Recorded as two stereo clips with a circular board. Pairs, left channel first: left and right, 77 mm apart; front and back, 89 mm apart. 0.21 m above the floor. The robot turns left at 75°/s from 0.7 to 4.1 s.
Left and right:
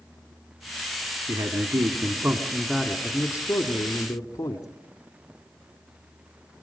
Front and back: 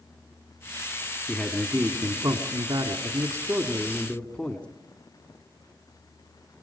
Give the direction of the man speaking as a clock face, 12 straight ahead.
2 o'clock.